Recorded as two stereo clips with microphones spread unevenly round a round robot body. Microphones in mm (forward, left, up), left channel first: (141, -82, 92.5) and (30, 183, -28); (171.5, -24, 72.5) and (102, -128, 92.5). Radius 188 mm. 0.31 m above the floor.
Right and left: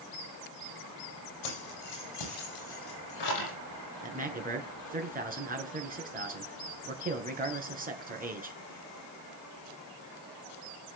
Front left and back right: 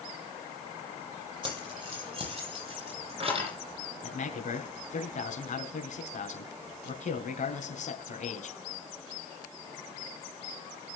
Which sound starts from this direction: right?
Keys jangling, at 1.4 s.